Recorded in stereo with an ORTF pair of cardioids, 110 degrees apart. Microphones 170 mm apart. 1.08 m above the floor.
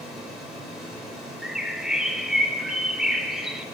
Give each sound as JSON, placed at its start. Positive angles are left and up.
{"t": 0.0, "sound": "a fan", "azimuth_deg": -5, "distance_m": 3.5}
{"t": 1.4, "sound": "a bird", "azimuth_deg": -5, "distance_m": 0.6}